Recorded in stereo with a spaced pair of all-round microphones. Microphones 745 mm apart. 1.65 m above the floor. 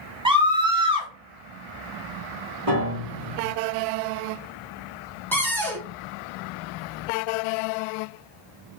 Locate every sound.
0.2 s a scream: 5° right (ahead or behind), 0.9 m
2.7 s a piano: 40° right (ahead or behind), 1.9 m
5.3 s a cupboard door: 5° left (ahead or behind), 0.7 m